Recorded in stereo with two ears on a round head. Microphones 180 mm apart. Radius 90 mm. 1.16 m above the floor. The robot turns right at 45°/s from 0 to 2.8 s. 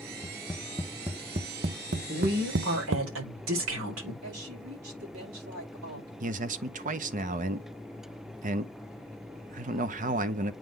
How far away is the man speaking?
About 0.7 m.